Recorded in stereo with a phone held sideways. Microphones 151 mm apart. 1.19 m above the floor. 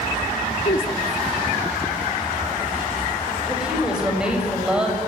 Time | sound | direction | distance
0.7 | a woman speaking | 70° left (ahead or behind) | 3 m
3.5 | a woman speaking | 5° right (ahead or behind) | 7.5 m